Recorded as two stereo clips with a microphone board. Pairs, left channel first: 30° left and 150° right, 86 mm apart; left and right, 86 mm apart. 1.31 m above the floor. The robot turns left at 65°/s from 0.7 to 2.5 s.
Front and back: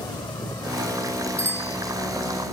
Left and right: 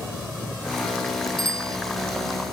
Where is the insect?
Straight ahead; by 2.5 s 120° right.